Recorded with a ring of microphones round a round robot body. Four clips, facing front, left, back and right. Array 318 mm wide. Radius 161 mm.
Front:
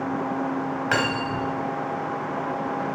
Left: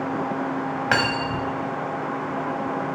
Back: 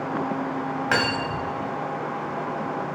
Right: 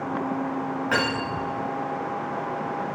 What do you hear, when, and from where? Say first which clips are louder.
0.9 s cutlery clinking: left 3 dB, even; 85° left, 1.8 m